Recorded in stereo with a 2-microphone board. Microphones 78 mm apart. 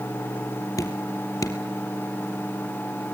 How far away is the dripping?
About 3 m.